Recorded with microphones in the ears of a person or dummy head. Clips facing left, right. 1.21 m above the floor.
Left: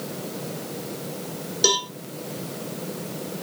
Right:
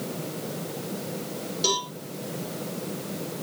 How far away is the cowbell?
About 1.5 m.